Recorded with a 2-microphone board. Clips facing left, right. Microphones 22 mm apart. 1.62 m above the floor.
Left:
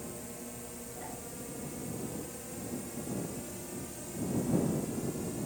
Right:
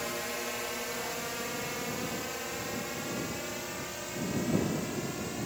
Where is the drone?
65° right (ahead or behind); by 5.5 s 35° right (ahead or behind).